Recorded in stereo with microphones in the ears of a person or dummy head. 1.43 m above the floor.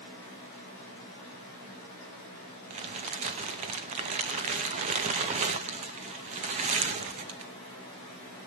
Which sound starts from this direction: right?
Crumpling, at 2.7 s.